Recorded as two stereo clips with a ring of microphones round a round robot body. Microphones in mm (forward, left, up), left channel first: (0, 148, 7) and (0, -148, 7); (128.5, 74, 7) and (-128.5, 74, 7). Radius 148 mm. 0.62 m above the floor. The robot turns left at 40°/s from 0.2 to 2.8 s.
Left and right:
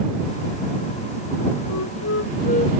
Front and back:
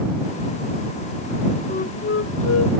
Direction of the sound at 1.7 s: 60° left.